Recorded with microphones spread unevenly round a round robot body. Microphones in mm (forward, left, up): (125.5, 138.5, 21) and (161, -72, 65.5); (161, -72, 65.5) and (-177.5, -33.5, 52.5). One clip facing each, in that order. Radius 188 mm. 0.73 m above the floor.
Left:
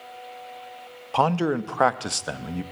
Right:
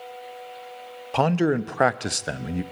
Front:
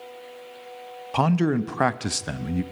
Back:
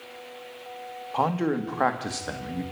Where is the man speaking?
Straight ahead, 0.9 m.